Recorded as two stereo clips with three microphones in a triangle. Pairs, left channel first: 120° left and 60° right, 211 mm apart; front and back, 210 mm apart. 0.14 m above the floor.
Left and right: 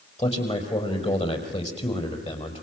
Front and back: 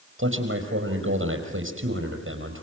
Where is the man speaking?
Straight behind, 5.5 m.